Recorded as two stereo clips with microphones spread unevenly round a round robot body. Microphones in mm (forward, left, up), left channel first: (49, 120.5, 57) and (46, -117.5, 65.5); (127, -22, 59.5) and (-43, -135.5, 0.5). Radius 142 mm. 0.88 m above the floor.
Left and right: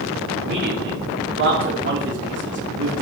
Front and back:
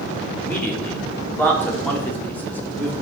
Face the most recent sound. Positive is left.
turn(degrees=-50)